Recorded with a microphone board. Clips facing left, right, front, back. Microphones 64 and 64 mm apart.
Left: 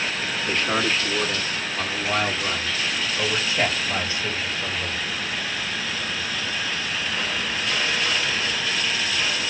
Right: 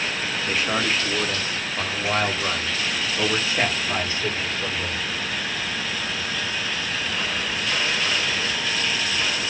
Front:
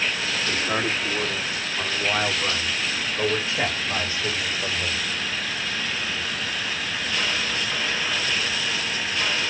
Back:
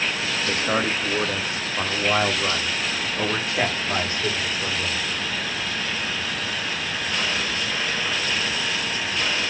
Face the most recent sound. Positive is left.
turn(degrees=-145)